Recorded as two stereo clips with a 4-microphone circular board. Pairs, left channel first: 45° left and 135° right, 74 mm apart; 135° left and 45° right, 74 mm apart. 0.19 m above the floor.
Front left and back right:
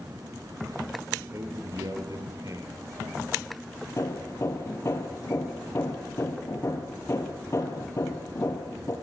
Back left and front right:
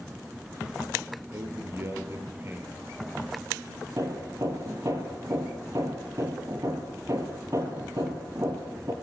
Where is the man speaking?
95° right, 4 m; by 3.2 s 105° right, 6 m.